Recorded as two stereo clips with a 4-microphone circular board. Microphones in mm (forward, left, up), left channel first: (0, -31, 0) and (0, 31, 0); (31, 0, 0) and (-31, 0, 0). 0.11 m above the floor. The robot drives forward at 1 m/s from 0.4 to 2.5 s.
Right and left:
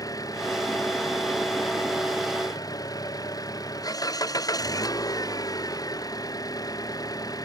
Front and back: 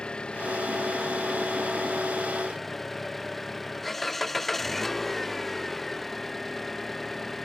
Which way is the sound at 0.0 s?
75° right.